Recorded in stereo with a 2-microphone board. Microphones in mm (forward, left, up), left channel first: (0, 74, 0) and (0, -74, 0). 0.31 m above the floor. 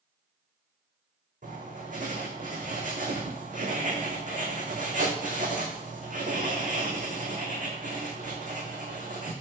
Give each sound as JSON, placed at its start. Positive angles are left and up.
{"t": 1.4, "sound": "writing", "side_deg": -65, "distance_m": 3.5}